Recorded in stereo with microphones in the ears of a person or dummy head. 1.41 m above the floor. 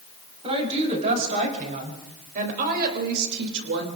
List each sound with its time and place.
0.4 s a woman speaking: 35° right (ahead or behind), 4.5 m; by 3.9 s 70° right (ahead or behind), 2.5 m